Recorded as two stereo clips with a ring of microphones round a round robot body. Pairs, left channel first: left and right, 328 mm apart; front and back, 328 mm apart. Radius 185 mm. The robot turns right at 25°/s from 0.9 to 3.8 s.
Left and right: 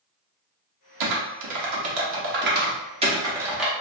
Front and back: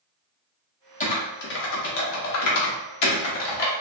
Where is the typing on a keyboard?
70° right, 0.7 m; by 3.7 s straight ahead, 0.7 m.